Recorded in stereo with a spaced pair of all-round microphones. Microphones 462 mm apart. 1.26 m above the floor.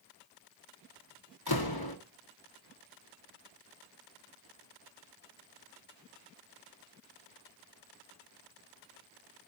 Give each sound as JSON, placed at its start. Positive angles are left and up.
{"t": 1.5, "sound": "a door slam", "side_deg": 50, "distance_m": 1.5}